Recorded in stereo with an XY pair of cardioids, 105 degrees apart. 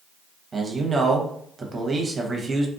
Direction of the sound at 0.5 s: 25° right.